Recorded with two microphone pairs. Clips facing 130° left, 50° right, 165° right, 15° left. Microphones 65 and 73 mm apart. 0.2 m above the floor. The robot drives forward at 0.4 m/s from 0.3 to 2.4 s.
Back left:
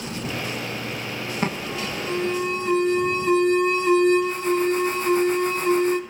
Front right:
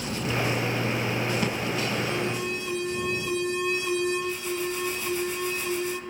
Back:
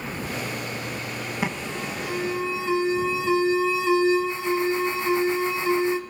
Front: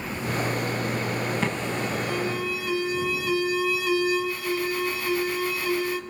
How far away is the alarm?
About 1.3 m.